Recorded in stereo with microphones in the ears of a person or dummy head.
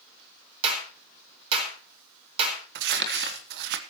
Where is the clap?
35° right (ahead or behind), 4.5 m.